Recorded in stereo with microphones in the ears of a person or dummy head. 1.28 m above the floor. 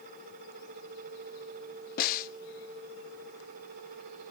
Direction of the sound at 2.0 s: 50° left (ahead or behind).